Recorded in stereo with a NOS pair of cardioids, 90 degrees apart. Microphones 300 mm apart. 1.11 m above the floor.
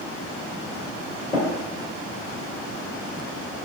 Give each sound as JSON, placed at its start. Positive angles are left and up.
{"t": 1.3, "sound": "tapping", "azimuth_deg": 25, "distance_m": 1.8}